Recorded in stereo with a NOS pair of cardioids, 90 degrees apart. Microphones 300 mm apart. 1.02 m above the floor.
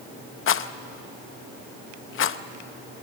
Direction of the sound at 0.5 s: 45° left.